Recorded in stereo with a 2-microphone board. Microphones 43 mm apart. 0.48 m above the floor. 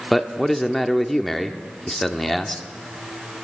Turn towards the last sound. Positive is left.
turn(degrees=5)  # may be behind; listen again after turning